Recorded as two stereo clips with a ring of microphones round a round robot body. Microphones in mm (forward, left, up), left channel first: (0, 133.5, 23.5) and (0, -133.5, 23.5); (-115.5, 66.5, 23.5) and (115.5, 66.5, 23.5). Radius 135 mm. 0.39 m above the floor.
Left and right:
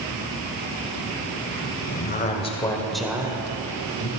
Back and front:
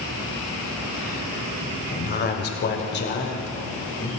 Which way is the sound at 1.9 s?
140° left.